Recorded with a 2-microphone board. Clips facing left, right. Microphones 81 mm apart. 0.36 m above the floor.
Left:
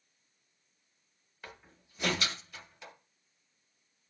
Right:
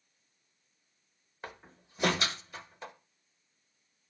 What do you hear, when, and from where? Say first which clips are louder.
1.4 s a door slam: right 5 dB; 35° right (ahead or behind), 1.4 m